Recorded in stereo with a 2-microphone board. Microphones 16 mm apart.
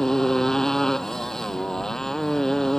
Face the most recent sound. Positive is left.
turn(degrees=35)  # may be behind; listen again after turning